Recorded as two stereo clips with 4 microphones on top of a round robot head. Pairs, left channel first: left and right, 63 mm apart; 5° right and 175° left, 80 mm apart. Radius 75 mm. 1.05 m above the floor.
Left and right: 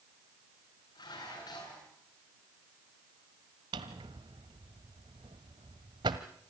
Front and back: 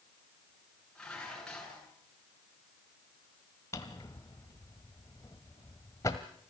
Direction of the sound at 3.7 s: 65° right.